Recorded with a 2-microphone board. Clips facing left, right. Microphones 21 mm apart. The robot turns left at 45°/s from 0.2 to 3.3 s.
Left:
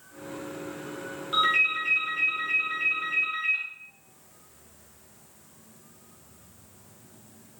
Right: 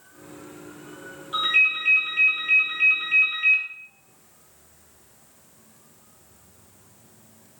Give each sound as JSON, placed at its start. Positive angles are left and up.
{"t": 1.3, "sound": "a ringtone", "azimuth_deg": 25, "distance_m": 2.5}